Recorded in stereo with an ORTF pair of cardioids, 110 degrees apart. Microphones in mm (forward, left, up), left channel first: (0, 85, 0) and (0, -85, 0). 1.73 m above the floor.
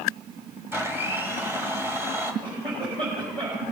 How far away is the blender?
About 1.5 m.